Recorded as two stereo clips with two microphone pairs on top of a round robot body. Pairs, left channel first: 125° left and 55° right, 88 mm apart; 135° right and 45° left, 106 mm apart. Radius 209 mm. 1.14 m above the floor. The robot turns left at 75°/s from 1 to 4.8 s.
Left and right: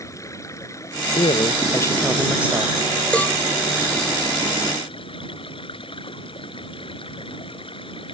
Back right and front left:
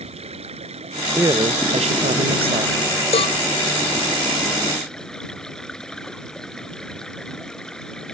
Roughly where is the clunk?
I don't hear a clunk.